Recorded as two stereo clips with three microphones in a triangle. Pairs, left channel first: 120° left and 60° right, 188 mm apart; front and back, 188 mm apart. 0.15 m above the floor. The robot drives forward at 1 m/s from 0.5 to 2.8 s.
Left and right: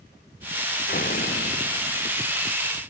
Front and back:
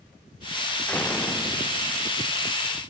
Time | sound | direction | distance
0.9 | a door slam | 80° left | ?